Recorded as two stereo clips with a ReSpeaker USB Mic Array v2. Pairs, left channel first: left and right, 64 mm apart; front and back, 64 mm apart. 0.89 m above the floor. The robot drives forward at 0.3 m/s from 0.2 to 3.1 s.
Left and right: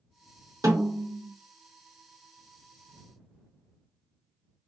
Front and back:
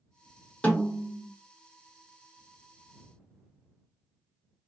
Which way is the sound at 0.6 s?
70° right.